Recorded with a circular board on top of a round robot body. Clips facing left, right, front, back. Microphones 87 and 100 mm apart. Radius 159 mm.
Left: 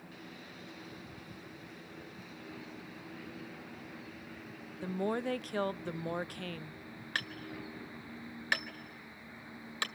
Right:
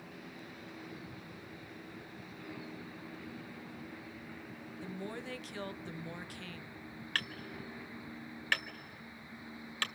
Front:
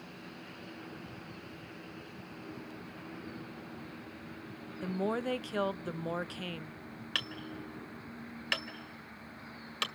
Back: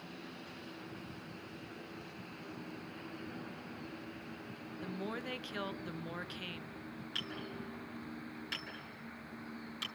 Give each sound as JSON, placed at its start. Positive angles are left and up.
{"t": 4.8, "sound": "a woman speaking", "azimuth_deg": 50, "distance_m": 0.7}
{"t": 7.2, "sound": "hammering", "azimuth_deg": 15, "distance_m": 2.0}